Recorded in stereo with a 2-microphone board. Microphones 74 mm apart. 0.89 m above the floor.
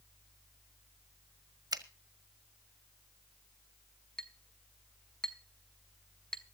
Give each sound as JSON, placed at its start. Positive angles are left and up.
{"t": 1.7, "sound": "a finger snap", "side_deg": -65, "distance_m": 1.4}
{"t": 4.2, "sound": "a clink", "side_deg": 10, "distance_m": 1.3}